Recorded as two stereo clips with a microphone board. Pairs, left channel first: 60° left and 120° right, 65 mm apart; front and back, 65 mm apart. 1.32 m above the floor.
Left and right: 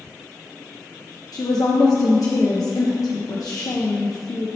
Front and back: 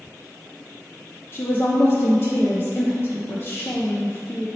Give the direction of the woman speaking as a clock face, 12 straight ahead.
10 o'clock.